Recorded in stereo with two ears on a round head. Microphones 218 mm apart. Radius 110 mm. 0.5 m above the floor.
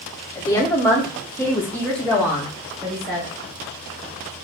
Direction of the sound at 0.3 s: 10° left (ahead or behind).